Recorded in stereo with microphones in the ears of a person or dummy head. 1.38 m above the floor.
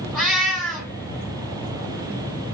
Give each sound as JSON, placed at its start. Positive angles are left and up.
{"t": 0.1, "sound": "a cat meowing", "side_deg": 5, "distance_m": 1.9}